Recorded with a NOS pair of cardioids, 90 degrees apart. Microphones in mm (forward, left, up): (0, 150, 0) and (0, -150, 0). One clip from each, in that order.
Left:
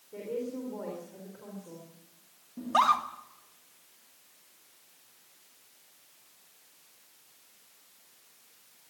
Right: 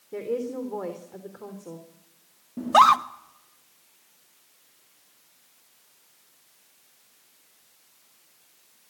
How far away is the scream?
About 1.5 m.